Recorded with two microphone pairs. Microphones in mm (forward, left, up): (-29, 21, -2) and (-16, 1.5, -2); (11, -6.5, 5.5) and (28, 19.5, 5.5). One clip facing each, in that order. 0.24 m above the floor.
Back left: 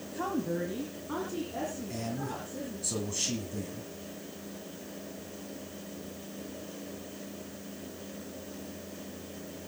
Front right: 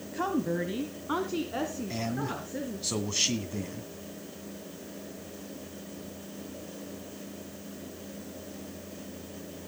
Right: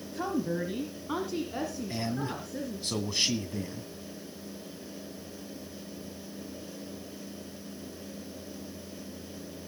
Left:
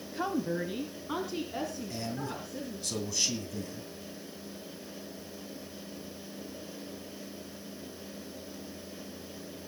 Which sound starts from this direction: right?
A man speaking, at 1.9 s.